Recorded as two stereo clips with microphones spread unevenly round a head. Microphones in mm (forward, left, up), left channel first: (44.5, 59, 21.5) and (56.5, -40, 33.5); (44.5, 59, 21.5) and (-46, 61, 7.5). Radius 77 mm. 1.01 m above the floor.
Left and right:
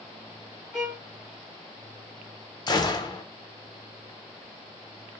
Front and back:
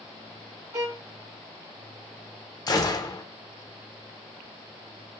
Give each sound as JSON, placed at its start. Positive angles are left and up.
{"t": 0.7, "sound": "a violin", "azimuth_deg": -155, "distance_m": 0.9}
{"t": 2.7, "sound": "a gunshot", "azimuth_deg": 50, "distance_m": 0.6}